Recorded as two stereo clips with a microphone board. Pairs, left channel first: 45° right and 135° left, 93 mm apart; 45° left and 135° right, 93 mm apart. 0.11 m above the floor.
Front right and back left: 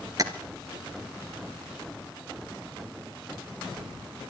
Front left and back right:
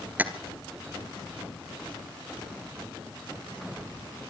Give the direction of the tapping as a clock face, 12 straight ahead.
7 o'clock.